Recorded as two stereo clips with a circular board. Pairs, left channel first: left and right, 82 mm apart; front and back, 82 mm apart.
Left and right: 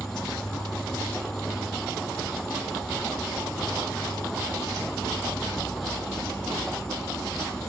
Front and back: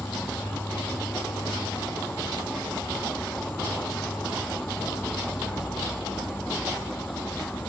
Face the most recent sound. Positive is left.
turn(degrees=10)